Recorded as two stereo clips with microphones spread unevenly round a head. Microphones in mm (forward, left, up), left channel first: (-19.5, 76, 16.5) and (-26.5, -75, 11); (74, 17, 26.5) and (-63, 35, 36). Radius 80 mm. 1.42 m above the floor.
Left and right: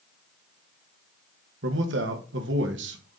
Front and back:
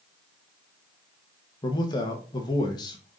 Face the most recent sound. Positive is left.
turn(degrees=-75)